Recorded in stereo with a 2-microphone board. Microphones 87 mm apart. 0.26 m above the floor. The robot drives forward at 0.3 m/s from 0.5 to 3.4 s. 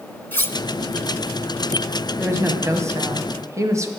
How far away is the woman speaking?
About 1.4 m.